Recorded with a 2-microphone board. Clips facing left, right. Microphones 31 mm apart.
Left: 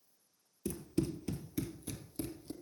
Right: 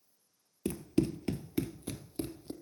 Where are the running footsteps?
50° right (ahead or behind), 0.9 m; by 2.5 s 30° right (ahead or behind), 1.5 m.